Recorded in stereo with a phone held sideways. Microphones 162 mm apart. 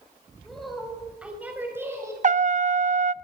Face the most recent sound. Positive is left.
turn(degrees=-50)  # may be behind; listen again after turning